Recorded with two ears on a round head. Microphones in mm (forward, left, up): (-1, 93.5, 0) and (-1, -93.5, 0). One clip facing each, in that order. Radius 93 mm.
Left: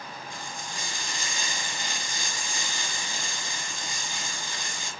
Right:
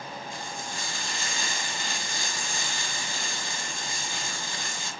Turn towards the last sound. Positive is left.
turn(degrees=15)  # may be behind; listen again after turning